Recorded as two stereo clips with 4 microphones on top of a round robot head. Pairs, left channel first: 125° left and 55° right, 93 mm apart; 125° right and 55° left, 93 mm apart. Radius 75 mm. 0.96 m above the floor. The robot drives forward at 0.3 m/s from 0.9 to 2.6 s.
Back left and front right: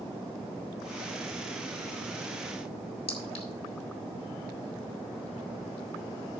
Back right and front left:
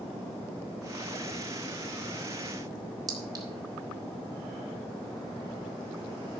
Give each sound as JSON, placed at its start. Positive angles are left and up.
{"t": 3.1, "sound": "a clink", "azimuth_deg": 110, "distance_m": 2.5}